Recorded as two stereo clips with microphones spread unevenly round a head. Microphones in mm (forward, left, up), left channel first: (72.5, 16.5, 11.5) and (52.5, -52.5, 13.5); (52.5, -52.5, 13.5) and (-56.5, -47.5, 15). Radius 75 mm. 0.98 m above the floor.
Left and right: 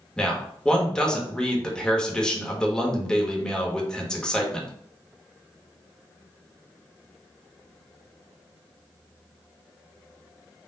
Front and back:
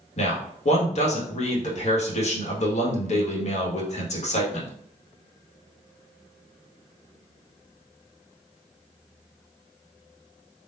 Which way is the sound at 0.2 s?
5° right.